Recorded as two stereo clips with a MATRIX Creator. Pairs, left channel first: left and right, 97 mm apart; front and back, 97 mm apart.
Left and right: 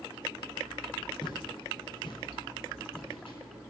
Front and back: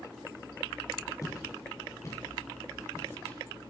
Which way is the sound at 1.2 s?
55° left.